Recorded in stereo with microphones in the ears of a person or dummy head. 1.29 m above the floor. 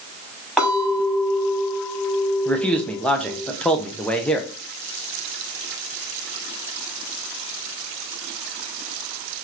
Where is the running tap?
No running tap in this recording.